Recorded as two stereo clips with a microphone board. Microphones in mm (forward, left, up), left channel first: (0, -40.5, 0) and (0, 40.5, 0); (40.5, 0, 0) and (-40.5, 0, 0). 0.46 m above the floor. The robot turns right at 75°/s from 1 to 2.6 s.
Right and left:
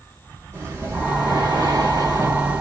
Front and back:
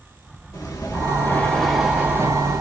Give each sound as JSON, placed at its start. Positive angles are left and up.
{"t": 0.5, "sound": "breathing", "azimuth_deg": 40, "distance_m": 2.0}